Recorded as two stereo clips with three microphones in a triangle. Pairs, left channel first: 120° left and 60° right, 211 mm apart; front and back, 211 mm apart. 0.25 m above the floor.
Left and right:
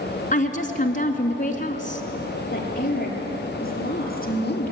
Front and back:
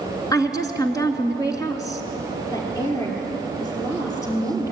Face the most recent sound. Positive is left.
turn(degrees=75)